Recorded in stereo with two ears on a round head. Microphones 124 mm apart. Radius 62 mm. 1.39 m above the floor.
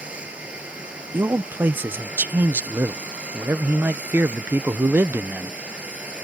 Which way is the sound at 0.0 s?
10° right (ahead or behind).